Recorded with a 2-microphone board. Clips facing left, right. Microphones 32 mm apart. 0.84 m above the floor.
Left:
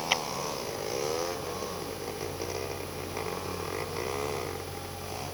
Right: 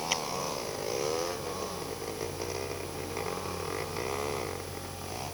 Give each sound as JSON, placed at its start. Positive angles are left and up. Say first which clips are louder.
{"t": 0.1, "sound": "a clap", "louder": "left 5 dB", "side_deg": 20}